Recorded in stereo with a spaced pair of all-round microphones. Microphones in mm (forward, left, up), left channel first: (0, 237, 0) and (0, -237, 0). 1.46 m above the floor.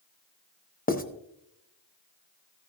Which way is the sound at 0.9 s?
20° left (ahead or behind).